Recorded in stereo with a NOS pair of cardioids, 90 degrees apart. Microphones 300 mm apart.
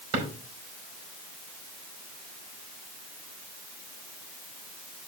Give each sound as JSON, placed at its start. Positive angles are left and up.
{"t": 0.1, "sound": "a drawer", "azimuth_deg": -55, "distance_m": 5.0}